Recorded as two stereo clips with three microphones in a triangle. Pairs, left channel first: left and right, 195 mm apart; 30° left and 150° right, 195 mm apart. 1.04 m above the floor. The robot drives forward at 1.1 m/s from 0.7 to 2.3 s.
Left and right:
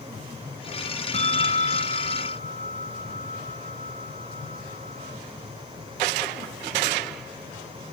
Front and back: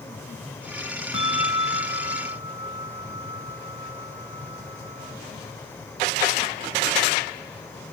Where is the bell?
35° left; by 5.2 s 40° left.